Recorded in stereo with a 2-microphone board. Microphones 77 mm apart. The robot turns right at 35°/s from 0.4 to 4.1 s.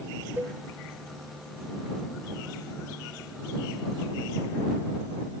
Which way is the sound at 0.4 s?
25° right (ahead or behind).